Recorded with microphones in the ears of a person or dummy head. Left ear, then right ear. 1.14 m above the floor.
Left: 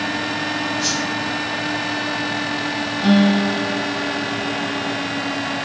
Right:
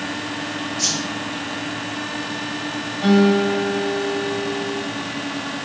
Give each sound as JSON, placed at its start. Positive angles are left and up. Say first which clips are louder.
{"t": 0.8, "sound": "a whoosh", "louder": "right 2 dB", "side_deg": -70, "distance_m": 4.0}
{"t": 3.0, "sound": "a guitar", "louder": "right 2 dB", "side_deg": -20, "distance_m": 4.5}